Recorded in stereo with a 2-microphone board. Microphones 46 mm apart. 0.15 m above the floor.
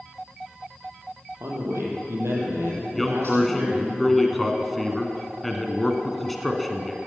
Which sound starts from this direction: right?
A man speaking, at 1.4 s.